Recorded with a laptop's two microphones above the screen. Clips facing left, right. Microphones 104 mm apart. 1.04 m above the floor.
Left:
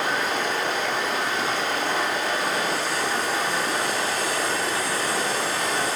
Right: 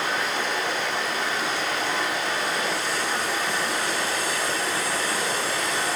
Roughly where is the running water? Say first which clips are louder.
Left 2 dB; left.